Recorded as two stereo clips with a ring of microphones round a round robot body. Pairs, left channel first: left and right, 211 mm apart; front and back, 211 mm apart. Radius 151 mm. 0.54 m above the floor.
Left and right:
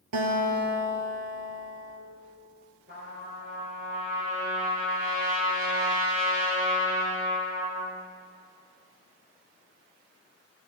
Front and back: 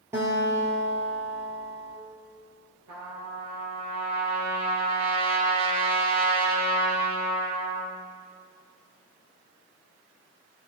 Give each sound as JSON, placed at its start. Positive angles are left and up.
{"t": 0.1, "sound": "a guitar", "azimuth_deg": -95, "distance_m": 2.5}
{"t": 2.9, "sound": "a trumpet", "azimuth_deg": -155, "distance_m": 4.0}